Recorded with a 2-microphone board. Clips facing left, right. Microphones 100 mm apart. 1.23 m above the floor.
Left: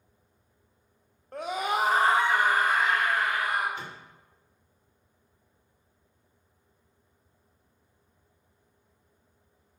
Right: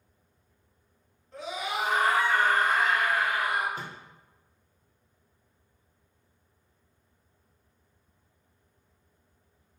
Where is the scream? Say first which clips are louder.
Left 4 dB; 55° left (ahead or behind), 0.5 m; by 3.6 s 15° right (ahead or behind), 1.0 m.